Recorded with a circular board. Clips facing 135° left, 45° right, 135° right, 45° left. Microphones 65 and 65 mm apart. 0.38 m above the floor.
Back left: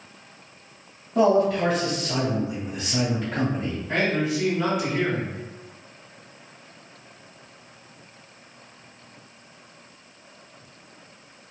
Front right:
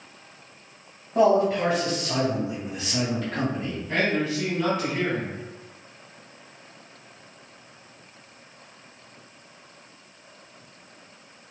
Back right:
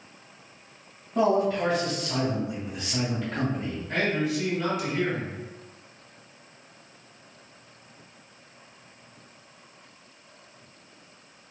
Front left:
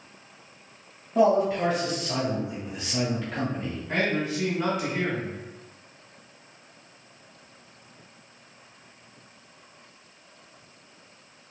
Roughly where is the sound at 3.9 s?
Left.